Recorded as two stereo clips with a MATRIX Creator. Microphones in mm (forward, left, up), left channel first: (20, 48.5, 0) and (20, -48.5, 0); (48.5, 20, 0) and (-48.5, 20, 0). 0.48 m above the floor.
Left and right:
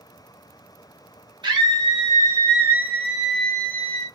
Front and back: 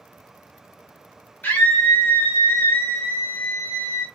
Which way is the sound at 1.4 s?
65° right.